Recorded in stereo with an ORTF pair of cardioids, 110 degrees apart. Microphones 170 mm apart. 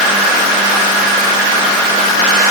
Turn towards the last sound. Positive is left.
No sound to turn to.